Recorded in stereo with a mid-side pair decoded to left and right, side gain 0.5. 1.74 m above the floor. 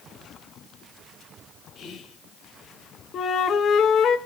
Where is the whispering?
55° left, 2.5 m.